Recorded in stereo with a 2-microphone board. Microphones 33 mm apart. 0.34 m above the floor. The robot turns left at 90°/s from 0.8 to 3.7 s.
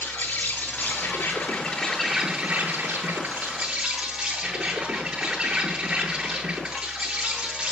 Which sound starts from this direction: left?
An insect, at 0.0 s.